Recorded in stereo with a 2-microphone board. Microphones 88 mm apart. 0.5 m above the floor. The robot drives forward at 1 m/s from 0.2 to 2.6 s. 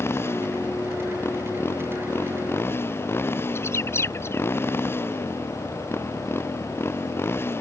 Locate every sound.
0.0 s a motorcycle: 30° left (ahead or behind); by 7.6 s 25° left (ahead or behind)
3.5 s a bird: 30° left (ahead or behind)